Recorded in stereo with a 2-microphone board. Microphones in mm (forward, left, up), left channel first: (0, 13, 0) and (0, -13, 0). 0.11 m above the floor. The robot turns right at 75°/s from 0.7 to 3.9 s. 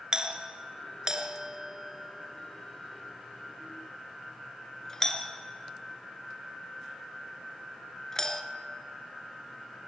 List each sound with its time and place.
0.1 s a doorbell: 30° right (ahead or behind), 1.7 m; by 8.4 s 20° left (ahead or behind), 1.7 m